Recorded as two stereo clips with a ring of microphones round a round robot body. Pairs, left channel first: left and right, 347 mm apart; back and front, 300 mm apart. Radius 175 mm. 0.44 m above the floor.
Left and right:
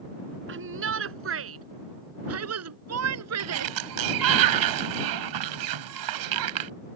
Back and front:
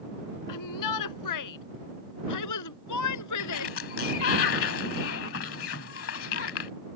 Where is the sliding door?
125° right.